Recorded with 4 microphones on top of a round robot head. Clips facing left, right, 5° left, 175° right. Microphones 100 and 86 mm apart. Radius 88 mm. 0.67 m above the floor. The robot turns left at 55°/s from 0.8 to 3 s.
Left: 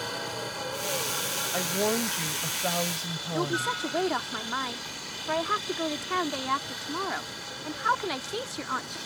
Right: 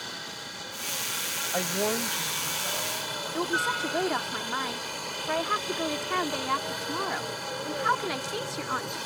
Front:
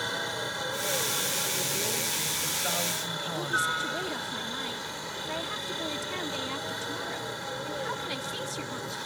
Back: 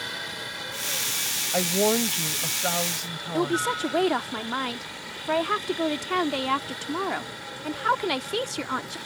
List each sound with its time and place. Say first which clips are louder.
0.0 s a helicopter: left 7 dB, front 3 dB; 60° left; by 9.1 s 60° right
1.5 s a woman speaking: left 1 dB, back 10 dB; 165° right; by 3.7 s 110° left
3.3 s a woman speaking: even, back 5 dB; 175° left